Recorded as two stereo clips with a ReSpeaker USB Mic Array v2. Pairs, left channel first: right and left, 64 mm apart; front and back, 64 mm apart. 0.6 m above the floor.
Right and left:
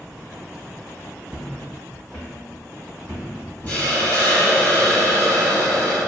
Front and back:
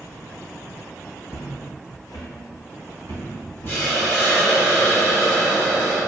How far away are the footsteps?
About 1.0 m.